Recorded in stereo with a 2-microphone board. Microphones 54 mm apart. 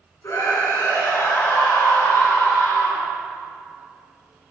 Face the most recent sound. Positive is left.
turn(degrees=55)  # may be behind; listen again after turning